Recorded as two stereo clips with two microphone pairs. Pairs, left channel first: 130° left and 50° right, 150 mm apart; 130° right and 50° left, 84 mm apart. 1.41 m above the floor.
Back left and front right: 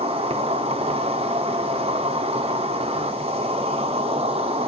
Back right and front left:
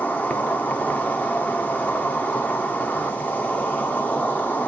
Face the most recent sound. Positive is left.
turn(degrees=-70)